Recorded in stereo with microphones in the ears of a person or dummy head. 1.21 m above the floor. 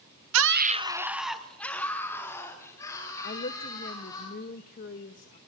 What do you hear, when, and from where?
0.3 s a scream: 80° right, 0.7 m; by 4.2 s 20° left (ahead or behind), 5.5 m
3.2 s a woman speaking: 45° left (ahead or behind), 1.0 m